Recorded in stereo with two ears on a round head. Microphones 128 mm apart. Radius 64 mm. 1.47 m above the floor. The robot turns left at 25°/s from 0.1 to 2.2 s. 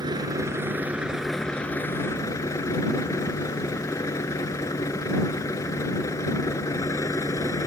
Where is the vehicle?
150° right; by 7.7 s 155° left.